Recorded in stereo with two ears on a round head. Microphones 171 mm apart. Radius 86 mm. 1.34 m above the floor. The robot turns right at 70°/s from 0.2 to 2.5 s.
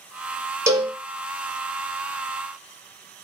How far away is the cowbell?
About 0.6 m.